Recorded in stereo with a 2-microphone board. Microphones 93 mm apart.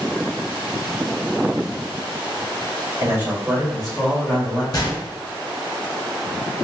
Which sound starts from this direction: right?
A man speaking, at 3.0 s.